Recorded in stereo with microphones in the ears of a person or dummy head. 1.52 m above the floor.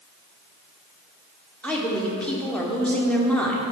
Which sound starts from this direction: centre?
A woman speaking, at 1.6 s.